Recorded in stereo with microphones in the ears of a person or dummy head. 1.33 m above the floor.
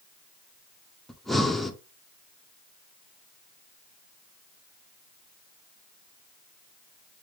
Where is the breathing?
Centre (ahead or behind), 0.5 m.